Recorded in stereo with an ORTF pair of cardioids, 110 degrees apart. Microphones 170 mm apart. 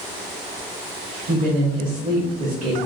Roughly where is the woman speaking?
Ahead right.